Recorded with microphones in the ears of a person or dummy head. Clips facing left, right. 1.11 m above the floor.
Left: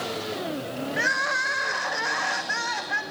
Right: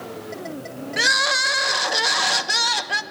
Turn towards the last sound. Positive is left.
turn(degrees=-55)  # may be behind; listen again after turning